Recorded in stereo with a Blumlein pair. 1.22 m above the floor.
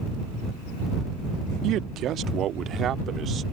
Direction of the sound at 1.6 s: 35° right.